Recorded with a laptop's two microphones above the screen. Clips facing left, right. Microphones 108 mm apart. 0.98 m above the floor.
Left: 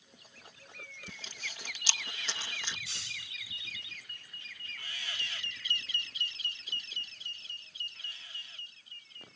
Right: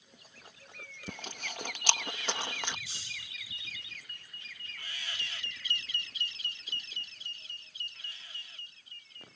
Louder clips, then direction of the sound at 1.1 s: Right 9 dB; 60° right (ahead or behind).